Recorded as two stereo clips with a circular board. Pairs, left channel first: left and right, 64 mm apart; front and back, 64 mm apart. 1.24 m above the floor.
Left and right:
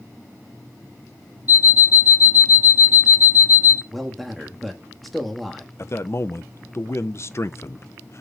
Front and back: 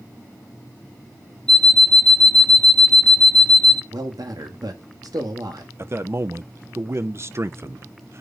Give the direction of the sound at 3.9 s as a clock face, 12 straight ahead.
6 o'clock.